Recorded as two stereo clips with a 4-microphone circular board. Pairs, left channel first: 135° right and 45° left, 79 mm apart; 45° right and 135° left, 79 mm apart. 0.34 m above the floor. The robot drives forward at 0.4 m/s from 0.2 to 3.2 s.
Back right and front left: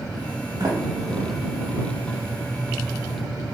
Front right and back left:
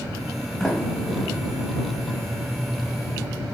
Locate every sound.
0.6 s a sliding door: 35° left, 0.9 m; by 1.4 s 55° left, 0.7 m